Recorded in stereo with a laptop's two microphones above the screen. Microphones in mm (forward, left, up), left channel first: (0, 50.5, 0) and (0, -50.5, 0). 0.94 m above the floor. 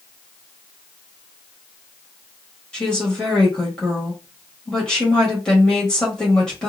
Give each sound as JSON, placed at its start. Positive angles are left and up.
{"t": 2.7, "sound": "a woman speaking", "side_deg": 10, "distance_m": 1.1}